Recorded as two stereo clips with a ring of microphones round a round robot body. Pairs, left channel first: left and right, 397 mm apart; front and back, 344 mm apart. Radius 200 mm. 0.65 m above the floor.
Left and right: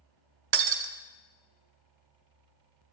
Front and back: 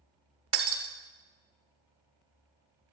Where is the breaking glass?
120° right, 0.6 m.